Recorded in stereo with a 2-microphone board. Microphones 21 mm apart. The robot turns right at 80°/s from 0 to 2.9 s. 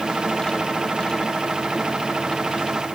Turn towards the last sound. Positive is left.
No sound to turn to.